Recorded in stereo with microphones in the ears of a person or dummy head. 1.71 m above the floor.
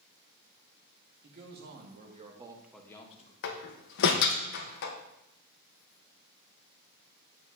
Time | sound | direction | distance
1.2 | a man speaking | 60° right (ahead or behind) | 2.5 m
3.4 | a door slam | 60° left (ahead or behind) | 1.2 m